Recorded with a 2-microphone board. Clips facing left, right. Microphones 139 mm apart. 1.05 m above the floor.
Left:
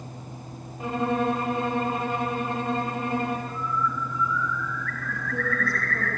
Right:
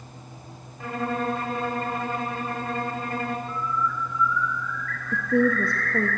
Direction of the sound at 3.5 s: 80° left.